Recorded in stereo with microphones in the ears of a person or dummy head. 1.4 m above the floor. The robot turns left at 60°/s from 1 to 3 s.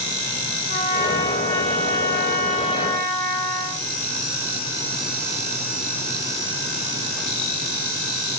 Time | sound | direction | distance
0.7 | a trumpet | 130° left | 7.5 m